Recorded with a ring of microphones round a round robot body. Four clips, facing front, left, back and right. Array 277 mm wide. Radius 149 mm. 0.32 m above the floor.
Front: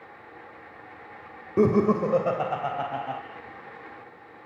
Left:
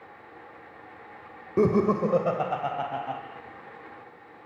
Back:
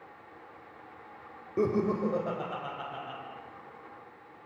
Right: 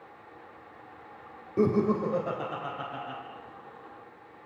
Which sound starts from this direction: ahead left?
Laughter, at 1.6 s.